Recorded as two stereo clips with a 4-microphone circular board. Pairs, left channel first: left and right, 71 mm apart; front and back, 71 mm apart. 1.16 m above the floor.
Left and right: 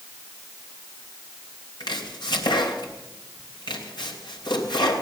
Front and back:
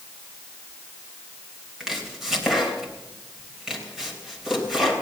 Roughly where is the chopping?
Left.